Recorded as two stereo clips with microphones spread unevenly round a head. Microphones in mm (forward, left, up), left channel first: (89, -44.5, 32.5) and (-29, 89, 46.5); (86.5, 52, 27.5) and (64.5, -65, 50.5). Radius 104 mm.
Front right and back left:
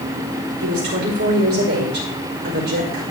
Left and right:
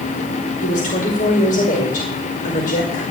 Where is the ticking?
I don't hear ticking.